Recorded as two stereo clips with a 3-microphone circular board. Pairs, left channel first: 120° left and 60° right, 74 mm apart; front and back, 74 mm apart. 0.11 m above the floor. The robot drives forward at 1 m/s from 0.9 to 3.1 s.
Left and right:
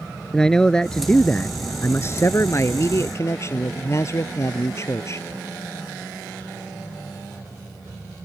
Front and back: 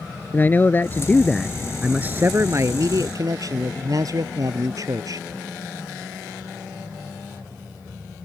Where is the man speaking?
45° left; by 5.2 s 160° left.